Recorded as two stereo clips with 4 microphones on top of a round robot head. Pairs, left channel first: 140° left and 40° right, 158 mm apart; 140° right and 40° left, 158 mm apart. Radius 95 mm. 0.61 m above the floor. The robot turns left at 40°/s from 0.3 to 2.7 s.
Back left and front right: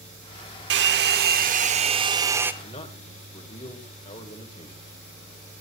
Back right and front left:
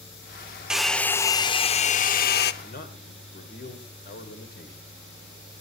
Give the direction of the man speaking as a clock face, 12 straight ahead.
5 o'clock.